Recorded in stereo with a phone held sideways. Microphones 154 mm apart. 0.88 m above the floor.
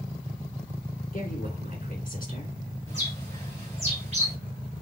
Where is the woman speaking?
55° left (ahead or behind), 1.8 m.